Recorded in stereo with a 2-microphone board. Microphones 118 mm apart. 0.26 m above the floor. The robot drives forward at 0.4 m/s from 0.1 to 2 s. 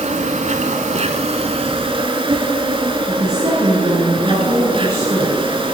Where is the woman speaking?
55° right (ahead or behind), 2.5 m.